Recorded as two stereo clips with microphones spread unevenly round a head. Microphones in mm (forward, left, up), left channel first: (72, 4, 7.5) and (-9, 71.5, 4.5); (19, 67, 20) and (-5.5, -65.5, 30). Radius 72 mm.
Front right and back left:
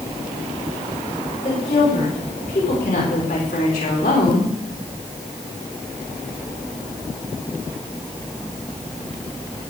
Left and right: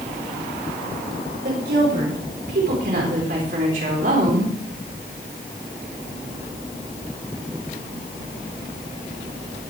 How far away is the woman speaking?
About 4.5 m.